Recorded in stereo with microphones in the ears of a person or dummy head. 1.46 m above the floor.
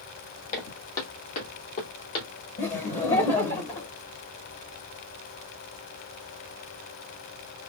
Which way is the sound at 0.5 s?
40° left (ahead or behind).